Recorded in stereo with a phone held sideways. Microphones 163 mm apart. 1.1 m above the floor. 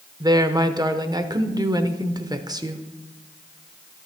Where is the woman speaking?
25° right (ahead or behind), 0.7 m.